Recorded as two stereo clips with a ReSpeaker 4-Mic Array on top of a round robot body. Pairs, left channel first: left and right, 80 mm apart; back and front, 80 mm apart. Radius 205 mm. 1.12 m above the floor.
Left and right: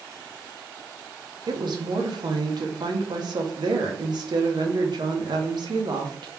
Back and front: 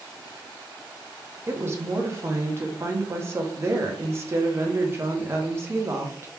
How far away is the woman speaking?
About 0.9 m.